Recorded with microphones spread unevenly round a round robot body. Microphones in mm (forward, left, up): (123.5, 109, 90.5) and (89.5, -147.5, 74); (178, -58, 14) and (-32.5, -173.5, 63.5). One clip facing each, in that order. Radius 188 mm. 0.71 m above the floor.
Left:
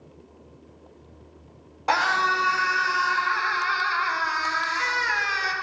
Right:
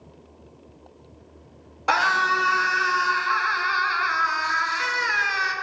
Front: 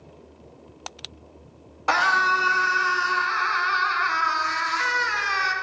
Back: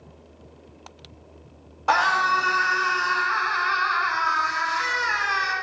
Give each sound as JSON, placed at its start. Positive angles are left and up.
{"t": 1.9, "sound": "a scream", "azimuth_deg": -20, "distance_m": 1.2}